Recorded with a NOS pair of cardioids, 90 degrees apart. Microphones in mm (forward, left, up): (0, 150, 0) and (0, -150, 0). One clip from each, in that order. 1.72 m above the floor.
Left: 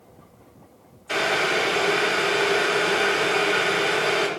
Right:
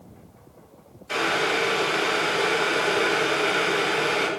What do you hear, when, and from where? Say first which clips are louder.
1.1 s boiling: left 1 dB; 25° left, 6.5 m